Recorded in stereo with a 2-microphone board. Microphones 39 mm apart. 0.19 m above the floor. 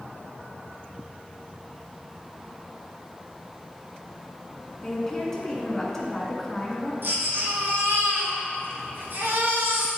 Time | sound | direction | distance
4.8 | a woman speaking | 10° left (ahead or behind) | 1.7 m
7.0 | a baby crying | 65° right (ahead or behind) | 1.9 m